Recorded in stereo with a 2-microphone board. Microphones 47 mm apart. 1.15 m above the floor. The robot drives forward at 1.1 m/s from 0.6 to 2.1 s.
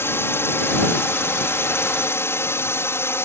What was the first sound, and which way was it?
A drone, 55° left (ahead or behind).